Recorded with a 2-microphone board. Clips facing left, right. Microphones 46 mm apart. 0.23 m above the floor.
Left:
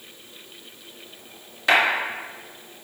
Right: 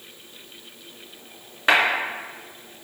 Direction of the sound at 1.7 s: 30° right (ahead or behind).